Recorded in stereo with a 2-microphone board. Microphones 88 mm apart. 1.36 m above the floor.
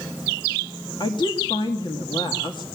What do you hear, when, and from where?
1.0 s a woman speaking: 60° left (ahead or behind), 2 m